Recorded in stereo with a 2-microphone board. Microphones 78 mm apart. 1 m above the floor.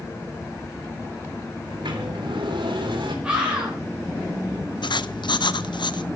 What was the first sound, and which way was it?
A sliding door, 80° right.